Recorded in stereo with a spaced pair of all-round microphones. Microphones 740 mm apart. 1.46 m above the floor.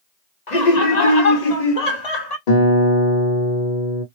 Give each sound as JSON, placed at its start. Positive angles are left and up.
{"t": 0.5, "sound": "laughter", "side_deg": 70, "distance_m": 1.3}
{"t": 2.5, "sound": "a guitar", "side_deg": 85, "distance_m": 1.1}